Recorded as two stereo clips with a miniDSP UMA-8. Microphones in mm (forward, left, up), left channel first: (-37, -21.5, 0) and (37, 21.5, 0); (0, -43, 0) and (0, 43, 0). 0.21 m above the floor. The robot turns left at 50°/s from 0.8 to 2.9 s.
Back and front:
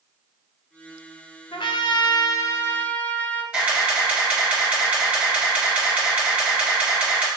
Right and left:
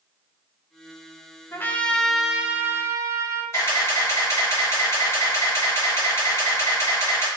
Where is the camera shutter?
40° right, 2.5 m.